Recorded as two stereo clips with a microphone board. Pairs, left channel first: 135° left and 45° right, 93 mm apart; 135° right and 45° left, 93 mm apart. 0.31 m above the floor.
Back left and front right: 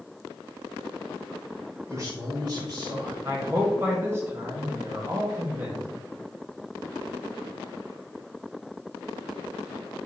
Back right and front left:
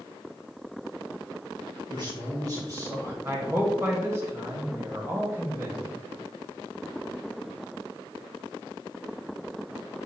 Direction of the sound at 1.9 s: 10° left.